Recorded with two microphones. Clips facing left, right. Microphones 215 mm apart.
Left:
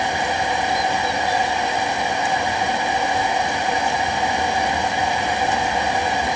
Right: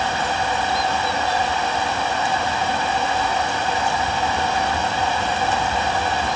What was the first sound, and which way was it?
Only background noise.